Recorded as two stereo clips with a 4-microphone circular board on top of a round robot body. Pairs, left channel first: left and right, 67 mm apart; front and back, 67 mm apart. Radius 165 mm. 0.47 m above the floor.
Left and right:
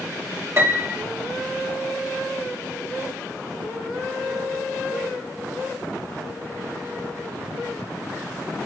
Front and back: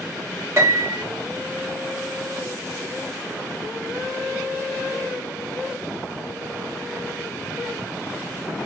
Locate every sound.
0.6 s a piano: 140° right, 1.6 m